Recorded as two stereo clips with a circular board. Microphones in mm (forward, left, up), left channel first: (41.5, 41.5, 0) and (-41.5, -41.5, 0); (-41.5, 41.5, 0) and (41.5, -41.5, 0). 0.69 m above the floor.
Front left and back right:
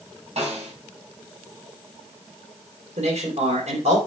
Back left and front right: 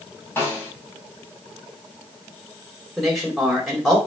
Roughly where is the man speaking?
Behind right.